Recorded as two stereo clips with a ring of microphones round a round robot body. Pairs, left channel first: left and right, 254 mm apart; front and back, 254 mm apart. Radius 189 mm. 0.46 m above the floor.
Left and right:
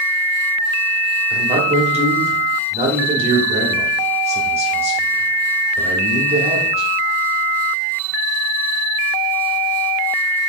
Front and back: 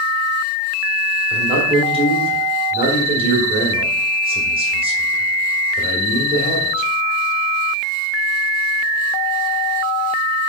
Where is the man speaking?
130° right, 1.0 m.